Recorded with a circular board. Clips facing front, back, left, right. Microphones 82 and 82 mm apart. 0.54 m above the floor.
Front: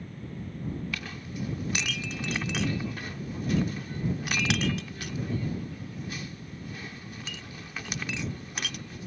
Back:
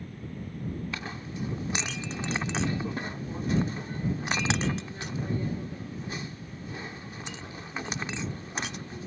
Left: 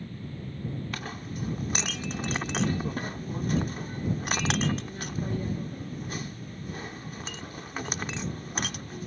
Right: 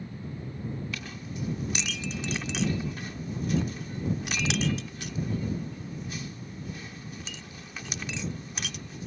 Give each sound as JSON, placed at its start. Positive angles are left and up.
{"t": 0.9, "sound": "a clink", "azimuth_deg": 120}